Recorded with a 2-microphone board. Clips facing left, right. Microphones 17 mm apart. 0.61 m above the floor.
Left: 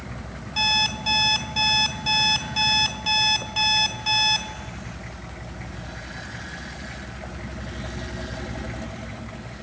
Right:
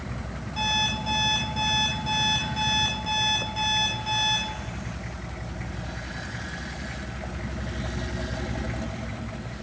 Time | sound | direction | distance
0.6 | an alarm clock | 65° left (ahead or behind) | 3.5 m